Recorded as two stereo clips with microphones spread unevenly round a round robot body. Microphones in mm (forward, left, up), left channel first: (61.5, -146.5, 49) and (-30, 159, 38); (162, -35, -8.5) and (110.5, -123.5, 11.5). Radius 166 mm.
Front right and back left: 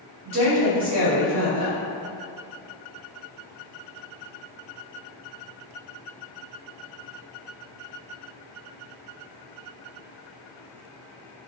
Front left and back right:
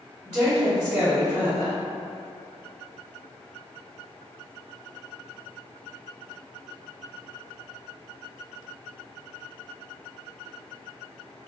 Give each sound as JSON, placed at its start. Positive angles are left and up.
{"t": 0.2, "sound": "a woman speaking", "azimuth_deg": 135, "distance_m": 1.8}